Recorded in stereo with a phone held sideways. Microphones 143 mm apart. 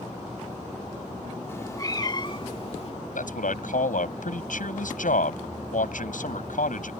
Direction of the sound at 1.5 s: 20° left (ahead or behind).